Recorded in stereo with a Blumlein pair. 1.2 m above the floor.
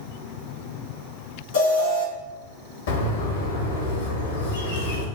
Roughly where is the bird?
Ahead left.